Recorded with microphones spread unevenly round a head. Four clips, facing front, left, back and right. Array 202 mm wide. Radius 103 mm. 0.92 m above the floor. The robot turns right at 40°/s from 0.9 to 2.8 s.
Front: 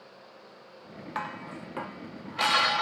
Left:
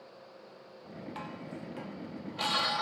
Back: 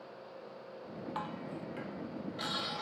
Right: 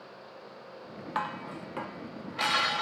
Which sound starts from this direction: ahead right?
Dishes clattering, at 1.1 s.